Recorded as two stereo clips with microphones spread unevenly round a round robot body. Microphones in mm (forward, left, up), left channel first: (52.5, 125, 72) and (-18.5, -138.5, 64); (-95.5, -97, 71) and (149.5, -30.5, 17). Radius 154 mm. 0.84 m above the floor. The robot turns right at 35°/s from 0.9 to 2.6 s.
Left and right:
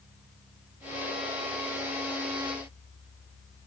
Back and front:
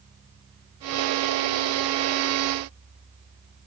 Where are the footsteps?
I don't hear footsteps.